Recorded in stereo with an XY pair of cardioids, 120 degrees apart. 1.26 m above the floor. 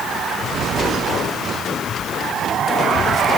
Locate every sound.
Only background noise.